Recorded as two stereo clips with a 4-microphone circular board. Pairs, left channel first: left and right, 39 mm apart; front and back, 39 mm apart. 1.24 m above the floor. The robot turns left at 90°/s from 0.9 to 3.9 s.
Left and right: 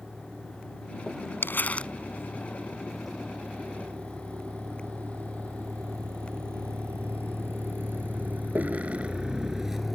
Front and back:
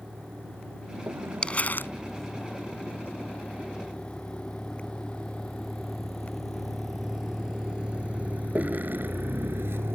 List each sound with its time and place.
0.0 s a vehicle: 160° right; by 9.9 s 175° right
1.4 s crumpling: 65° left; by 1.9 s 25° left